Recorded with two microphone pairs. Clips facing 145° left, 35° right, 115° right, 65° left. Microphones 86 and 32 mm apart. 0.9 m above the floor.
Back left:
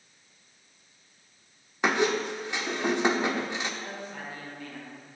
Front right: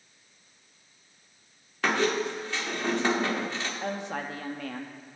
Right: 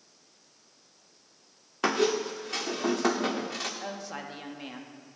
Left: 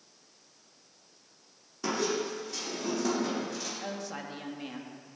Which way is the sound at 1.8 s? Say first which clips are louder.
Back left 1 dB, right 5 dB; 140° right.